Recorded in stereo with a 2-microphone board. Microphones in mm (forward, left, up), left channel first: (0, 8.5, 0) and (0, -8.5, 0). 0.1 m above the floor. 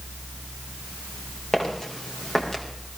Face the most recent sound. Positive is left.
turn(degrees=30)  # may be behind; listen again after turning